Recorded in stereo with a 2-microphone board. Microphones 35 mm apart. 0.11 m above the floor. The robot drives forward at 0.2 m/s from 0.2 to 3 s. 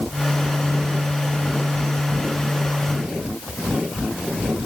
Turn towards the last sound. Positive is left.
No sound to turn to.